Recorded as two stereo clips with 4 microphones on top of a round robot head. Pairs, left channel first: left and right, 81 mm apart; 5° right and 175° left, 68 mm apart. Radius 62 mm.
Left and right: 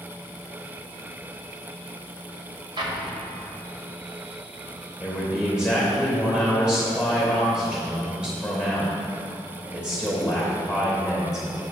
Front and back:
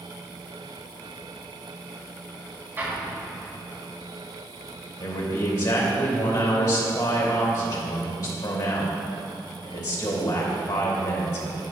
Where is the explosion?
115° right, 1.5 m.